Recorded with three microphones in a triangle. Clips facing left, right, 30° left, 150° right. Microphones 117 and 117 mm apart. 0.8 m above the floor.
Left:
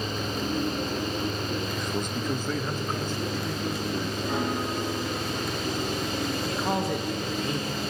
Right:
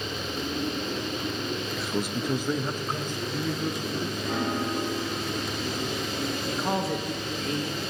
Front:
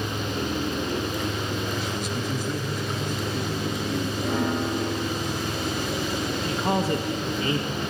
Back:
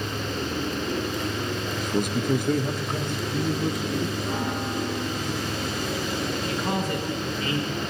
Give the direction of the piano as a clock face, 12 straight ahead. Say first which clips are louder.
Right 1 dB, front 3 dB; 12 o'clock.